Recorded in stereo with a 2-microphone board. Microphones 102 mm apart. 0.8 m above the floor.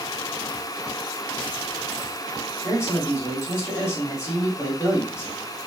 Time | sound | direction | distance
2.6 | a man speaking | 25° left (ahead or behind) | 2 m